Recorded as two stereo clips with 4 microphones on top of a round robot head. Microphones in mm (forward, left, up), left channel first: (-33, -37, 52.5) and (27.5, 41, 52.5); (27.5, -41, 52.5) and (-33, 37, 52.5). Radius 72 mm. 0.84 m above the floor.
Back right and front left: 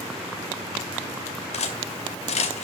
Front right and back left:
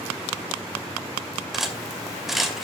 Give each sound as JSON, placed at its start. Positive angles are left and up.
{"t": 1.5, "sound": "cutlery clinking", "azimuth_deg": -145, "distance_m": 2.0}